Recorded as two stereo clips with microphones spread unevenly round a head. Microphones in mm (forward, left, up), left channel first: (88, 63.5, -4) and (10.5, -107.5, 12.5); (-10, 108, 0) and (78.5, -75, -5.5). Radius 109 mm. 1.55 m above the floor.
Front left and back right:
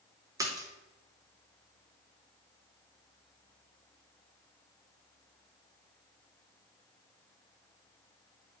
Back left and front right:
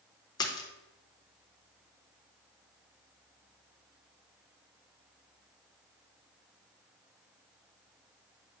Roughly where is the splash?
Behind.